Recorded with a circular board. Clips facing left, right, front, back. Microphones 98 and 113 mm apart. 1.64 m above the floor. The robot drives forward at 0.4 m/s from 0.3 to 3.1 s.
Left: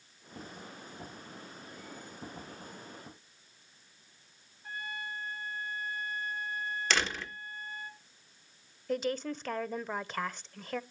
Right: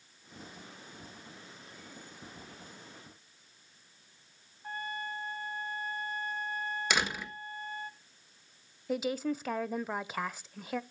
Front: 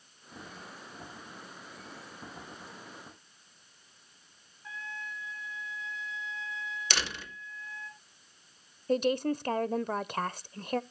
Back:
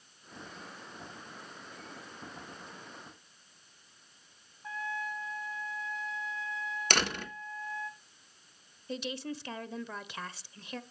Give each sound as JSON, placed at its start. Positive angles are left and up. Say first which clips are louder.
{"t": 4.6, "sound": "a trumpet", "louder": "right 2 dB, back 5 dB", "azimuth_deg": -135, "distance_m": 3.0}
{"t": 6.9, "sound": "a door slam", "louder": "even, back 7 dB", "azimuth_deg": -165, "distance_m": 1.2}
{"t": 8.9, "sound": "a woman speaking", "louder": "right 1 dB, front 10 dB", "azimuth_deg": -10, "distance_m": 0.6}